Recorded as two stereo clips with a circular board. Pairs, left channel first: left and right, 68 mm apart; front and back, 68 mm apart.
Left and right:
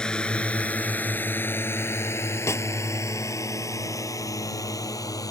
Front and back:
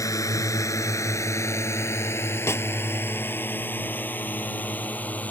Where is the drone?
15° left; by 5.3 s 65° left.